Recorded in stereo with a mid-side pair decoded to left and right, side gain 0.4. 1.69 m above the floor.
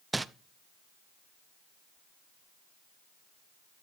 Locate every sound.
0.1 s crumpling: 20° right, 0.8 m